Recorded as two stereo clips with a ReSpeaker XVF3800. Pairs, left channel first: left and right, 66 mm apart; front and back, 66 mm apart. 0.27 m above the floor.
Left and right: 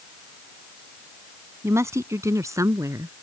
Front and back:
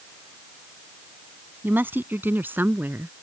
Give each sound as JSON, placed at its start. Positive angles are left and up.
{"t": 1.6, "sound": "a woman speaking", "azimuth_deg": -130}